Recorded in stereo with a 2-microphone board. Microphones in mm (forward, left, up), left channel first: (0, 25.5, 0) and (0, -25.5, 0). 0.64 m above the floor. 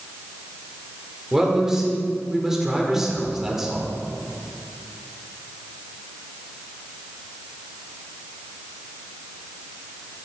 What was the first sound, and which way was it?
A man speaking, 10° right (ahead or behind).